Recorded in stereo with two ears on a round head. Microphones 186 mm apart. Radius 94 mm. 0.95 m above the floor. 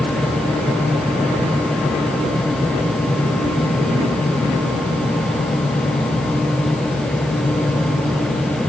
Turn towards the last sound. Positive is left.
No sound to turn to.